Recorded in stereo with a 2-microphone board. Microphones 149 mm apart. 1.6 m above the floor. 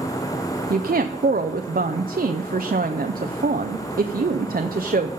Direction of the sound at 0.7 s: 65° right (ahead or behind).